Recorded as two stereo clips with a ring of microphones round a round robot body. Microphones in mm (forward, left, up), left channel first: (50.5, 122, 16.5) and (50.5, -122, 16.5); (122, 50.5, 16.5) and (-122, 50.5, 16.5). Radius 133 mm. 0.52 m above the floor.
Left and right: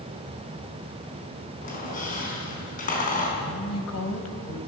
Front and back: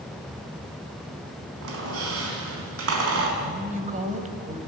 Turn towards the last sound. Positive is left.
turn(degrees=120)